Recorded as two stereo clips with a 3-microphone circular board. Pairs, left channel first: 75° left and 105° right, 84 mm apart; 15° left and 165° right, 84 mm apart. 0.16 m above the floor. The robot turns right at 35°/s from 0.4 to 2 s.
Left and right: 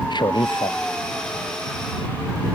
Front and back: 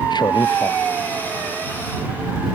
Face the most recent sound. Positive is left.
turn(degrees=100)